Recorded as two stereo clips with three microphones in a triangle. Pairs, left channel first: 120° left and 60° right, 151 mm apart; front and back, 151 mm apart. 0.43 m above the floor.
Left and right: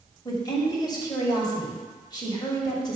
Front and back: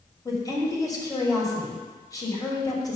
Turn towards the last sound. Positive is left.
turn(degrees=60)